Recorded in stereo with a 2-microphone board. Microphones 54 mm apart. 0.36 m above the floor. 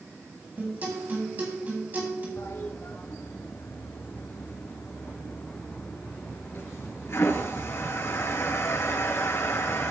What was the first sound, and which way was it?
A guitar, 35° right (ahead or behind).